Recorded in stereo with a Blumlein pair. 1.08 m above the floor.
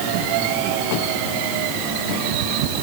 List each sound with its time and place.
Only background noise.